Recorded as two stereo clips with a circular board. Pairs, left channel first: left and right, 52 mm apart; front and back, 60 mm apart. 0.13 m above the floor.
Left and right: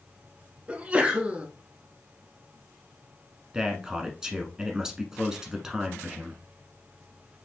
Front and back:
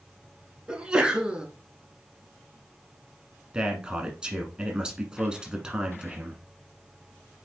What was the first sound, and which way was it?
A sneeze, 125° right.